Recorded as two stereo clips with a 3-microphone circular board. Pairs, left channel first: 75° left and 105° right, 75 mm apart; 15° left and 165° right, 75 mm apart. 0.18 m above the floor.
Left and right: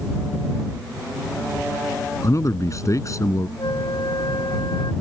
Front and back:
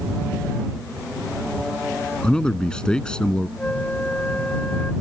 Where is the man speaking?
90° left.